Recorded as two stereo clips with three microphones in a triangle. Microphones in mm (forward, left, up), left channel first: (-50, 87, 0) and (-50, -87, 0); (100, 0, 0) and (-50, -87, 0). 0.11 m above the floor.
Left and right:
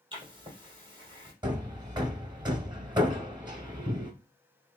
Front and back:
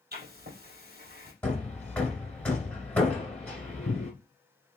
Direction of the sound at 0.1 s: 150° right.